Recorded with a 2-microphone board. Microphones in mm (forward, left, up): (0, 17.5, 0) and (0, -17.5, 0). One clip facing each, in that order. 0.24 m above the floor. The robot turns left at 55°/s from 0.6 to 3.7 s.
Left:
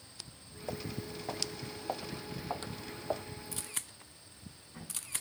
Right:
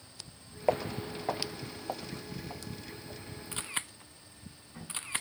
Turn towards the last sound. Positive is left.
turn(degrees=-30)  # may be behind; listen again after turning